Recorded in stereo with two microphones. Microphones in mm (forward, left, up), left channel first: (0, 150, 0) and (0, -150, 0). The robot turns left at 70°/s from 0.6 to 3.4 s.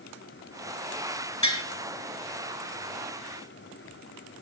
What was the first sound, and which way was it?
Tapping, 70° left (ahead or behind).